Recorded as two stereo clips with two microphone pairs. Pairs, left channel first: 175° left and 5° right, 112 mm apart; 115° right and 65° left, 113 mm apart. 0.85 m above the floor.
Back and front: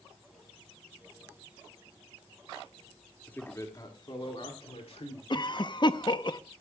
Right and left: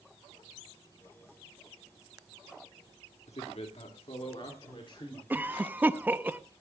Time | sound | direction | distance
3.3 | a man speaking | 110° right | 1.8 m
5.3 | a cough | 135° left | 0.7 m